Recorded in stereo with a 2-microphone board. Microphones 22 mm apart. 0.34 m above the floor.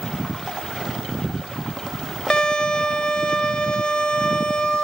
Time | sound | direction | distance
2.3 | a violin | 45° left (ahead or behind) | 0.5 m